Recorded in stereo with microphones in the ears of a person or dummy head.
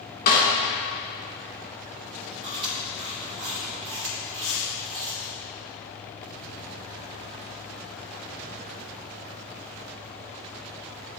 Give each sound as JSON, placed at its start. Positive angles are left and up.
{"t": 0.3, "sound": "a snare drum", "side_deg": 50, "distance_m": 1.9}
{"t": 2.4, "sound": "chewing", "side_deg": -30, "distance_m": 1.8}
{"t": 4.4, "sound": "a hiss", "side_deg": 60, "distance_m": 0.8}